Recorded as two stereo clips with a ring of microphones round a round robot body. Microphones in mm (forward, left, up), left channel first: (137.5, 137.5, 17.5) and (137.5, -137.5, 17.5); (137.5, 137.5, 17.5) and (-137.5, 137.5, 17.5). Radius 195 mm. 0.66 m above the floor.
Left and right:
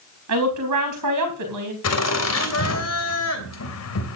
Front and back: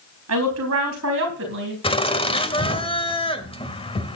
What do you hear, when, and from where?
0.3 s a woman speaking: 135° right, 4 m; by 1.7 s 120° right, 4 m
1.8 s laughter: 70° left, 3 m